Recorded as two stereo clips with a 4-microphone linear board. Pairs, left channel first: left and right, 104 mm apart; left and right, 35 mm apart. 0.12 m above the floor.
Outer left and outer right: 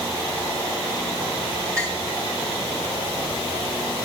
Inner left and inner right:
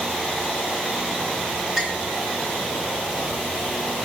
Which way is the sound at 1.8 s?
35° right (ahead or behind).